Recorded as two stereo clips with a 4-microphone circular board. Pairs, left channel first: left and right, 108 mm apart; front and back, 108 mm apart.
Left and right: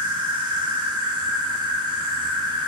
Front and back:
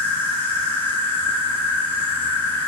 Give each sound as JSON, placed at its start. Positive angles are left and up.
{"t": 0.0, "sound": "an insect", "azimuth_deg": -65, "distance_m": 0.8}